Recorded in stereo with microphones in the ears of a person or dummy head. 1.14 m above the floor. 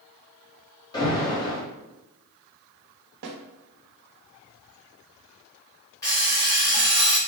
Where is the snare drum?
65° right (ahead or behind), 0.8 m.